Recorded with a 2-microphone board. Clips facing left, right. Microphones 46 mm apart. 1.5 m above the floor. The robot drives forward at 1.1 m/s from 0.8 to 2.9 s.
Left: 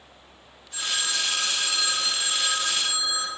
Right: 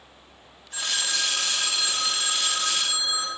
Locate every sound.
0.7 s a phone ringing: 40° right (ahead or behind), 8 m; by 3.3 s 30° right (ahead or behind), 10 m